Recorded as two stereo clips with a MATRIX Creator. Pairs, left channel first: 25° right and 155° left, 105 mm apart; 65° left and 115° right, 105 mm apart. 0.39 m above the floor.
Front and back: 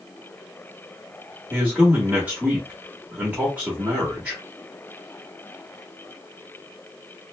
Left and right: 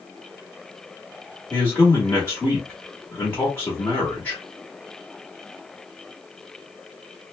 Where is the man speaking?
95° left, 1.0 m.